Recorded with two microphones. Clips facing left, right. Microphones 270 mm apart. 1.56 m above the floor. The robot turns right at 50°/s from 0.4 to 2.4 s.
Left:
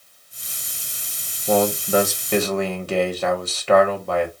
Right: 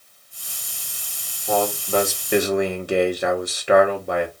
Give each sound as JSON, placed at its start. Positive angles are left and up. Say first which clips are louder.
{"t": 1.5, "sound": "a man speaking", "louder": "left 3 dB", "azimuth_deg": 150, "distance_m": 1.3}